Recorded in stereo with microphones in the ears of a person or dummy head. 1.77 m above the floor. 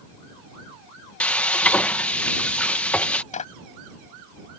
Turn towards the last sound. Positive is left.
turn(degrees=40)  # may be behind; listen again after turning